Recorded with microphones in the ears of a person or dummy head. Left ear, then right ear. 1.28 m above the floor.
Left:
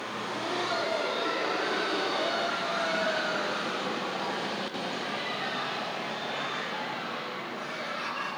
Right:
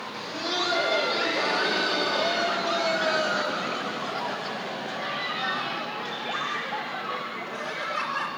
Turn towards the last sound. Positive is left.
turn(degrees=-60)  # may be behind; listen again after turning